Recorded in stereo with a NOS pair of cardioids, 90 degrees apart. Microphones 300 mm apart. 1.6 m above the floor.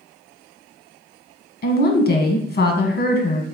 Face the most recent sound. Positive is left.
turn(degrees=35)